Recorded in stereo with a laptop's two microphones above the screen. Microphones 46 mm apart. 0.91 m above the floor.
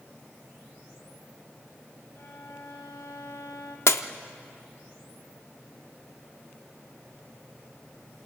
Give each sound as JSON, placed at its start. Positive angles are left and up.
{"t": 2.1, "sound": "a violin", "side_deg": 70, "distance_m": 2.5}
{"t": 3.9, "sound": "breaking glass", "side_deg": 65, "distance_m": 0.7}